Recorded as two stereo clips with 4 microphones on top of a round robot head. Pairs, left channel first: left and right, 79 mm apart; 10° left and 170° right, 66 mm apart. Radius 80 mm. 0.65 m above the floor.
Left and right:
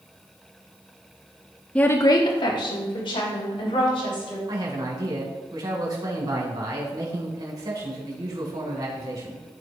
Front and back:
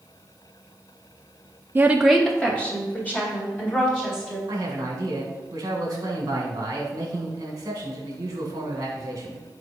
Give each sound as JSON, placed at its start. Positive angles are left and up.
{"t": 1.8, "sound": "a woman speaking", "azimuth_deg": 160, "distance_m": 0.6}
{"t": 4.5, "sound": "a man speaking", "azimuth_deg": -135, "distance_m": 2.5}